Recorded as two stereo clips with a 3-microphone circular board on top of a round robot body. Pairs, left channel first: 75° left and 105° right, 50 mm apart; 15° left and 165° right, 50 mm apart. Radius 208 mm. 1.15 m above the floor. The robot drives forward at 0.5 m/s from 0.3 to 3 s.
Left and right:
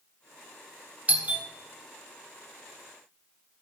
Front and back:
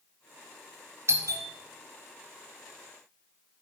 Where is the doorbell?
160° right, 1.5 m; by 1.5 s 165° right, 1.6 m.